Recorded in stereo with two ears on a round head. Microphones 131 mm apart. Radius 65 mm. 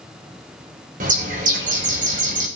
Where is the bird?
60° right (ahead or behind), 3 m.